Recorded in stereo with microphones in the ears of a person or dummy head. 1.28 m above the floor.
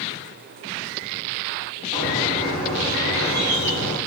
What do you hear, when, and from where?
1.9 s a bird: 50° right (ahead or behind), 2 m